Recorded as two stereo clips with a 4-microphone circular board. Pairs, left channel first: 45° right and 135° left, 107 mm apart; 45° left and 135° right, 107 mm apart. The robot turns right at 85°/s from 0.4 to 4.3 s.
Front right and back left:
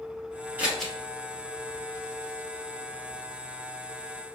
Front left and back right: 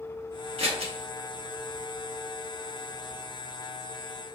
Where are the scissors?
150° right, 0.9 m; by 0.9 s 120° right, 0.9 m.